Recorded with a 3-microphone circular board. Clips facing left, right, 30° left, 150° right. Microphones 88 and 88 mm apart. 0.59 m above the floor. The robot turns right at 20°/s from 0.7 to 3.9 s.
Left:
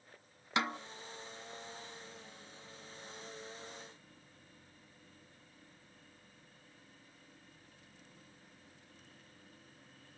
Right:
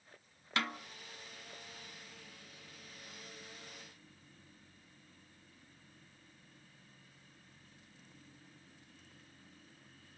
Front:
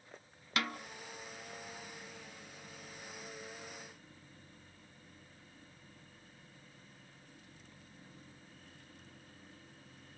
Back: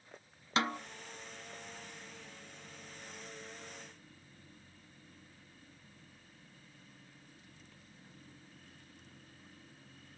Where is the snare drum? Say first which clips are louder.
Left 3 dB, back 4 dB; 155° left, 0.8 m; by 0.8 s 160° left, 0.8 m.